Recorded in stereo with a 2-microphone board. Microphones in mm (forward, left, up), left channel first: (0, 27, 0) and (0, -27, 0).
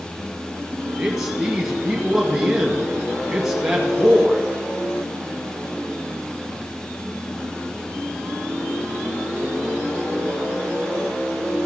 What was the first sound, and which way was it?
A man speaking, 10° right (ahead or behind).